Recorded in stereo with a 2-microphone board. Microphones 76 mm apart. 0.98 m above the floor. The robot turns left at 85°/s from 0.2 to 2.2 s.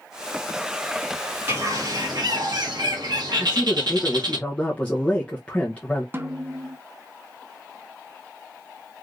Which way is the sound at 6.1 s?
30° right (ahead or behind).